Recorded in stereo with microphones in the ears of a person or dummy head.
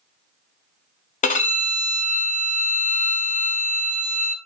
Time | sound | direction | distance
1.2 | a violin | 35° left (ahead or behind) | 0.5 m